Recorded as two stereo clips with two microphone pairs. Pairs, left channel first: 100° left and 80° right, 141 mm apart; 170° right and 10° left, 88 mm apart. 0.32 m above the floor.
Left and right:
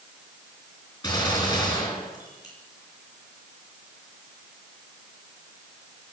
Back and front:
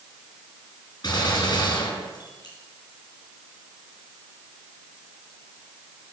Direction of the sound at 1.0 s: 165° left.